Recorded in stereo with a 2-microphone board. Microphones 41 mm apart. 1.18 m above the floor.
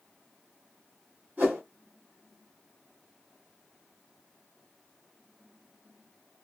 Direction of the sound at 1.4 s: 45° right (ahead or behind).